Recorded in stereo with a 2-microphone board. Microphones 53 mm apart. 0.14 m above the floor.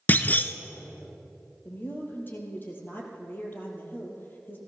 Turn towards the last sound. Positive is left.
turn(degrees=40)  # may be behind; listen again after turning